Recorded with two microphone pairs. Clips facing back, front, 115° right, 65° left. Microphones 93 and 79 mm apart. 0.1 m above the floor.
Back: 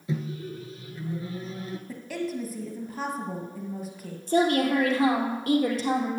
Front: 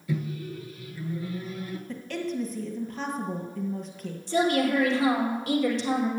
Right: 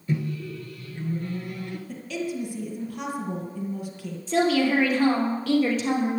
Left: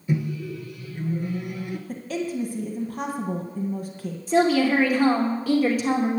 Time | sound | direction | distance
0.1 | a microwave | 135° left | 1.0 m
1.9 | a woman speaking | 100° left | 1.8 m
4.3 | a woman speaking | 145° left | 2.5 m